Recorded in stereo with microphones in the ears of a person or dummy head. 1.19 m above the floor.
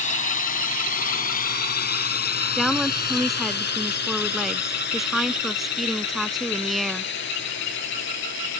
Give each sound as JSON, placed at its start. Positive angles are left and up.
{"t": 0.0, "sound": "a drone", "side_deg": 40}
{"t": 2.5, "sound": "a woman speaking", "side_deg": 0}